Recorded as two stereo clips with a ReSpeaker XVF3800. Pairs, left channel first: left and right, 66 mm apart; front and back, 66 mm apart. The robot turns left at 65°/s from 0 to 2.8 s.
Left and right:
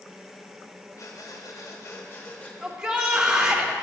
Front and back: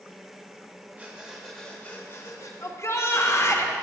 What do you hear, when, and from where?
1.0 s breathing: 120° left, 1.4 m; by 2.5 s 20° left, 1.4 m
2.6 s a shout: straight ahead, 1.2 m; by 3.7 s 15° right, 1.2 m